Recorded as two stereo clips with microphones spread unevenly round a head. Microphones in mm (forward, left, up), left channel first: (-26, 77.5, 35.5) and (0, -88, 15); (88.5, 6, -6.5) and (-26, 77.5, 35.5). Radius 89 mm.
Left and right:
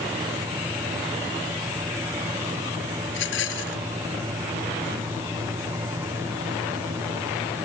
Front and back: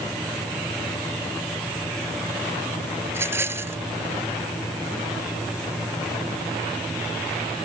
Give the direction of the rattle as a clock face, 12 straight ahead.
9 o'clock.